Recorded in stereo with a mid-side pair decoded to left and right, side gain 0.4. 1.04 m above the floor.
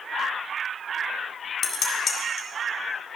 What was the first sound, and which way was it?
Dishes clattering, 55° left.